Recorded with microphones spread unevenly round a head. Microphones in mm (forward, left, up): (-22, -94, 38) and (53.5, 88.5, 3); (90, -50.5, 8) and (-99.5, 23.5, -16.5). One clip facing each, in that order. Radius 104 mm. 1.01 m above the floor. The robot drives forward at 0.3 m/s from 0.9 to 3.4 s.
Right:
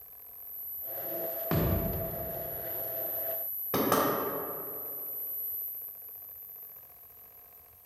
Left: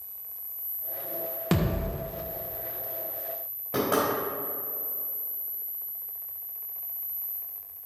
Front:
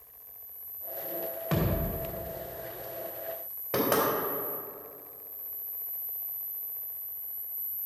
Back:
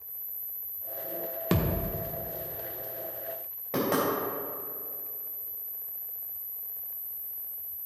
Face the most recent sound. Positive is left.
turn(degrees=-100)